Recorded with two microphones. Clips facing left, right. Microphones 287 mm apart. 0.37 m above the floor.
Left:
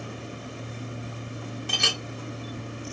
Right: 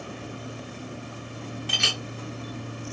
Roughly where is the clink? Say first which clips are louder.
Left 1 dB; left.